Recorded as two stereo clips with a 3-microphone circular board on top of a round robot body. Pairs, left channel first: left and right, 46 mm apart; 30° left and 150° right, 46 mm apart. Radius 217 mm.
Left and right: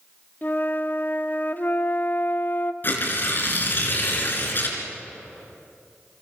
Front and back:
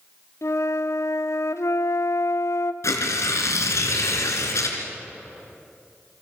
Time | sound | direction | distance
0.4 | a flute | 40° left | 0.9 m
2.8 | tearing paper | 45° left | 3 m